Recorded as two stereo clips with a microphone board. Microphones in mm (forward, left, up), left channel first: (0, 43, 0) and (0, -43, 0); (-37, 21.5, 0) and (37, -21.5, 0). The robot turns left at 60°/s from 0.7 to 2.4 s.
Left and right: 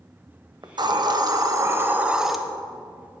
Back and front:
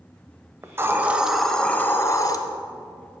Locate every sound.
0.6 s a hiss: 80° right, 0.7 m; by 2.4 s straight behind, 0.7 m